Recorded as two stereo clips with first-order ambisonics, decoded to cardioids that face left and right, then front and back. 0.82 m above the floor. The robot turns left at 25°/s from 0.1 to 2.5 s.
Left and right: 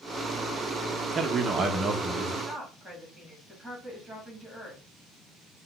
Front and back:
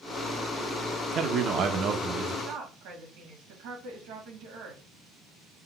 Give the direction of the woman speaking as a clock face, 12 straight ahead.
6 o'clock.